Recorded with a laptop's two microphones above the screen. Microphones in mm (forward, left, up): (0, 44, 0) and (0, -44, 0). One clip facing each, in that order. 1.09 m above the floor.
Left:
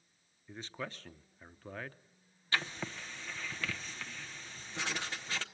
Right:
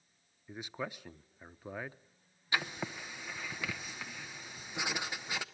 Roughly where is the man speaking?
Centre.